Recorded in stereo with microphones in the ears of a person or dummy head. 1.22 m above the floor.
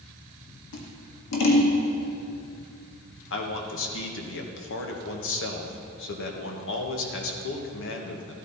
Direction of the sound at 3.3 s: 65° left (ahead or behind).